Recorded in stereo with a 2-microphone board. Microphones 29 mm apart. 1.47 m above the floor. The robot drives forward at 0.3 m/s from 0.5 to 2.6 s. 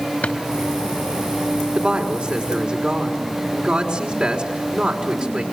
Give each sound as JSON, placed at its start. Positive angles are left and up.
{"t": 0.2, "sound": "a drawer", "side_deg": 65, "distance_m": 3.0}
{"t": 1.8, "sound": "a woman speaking", "side_deg": -40, "distance_m": 4.5}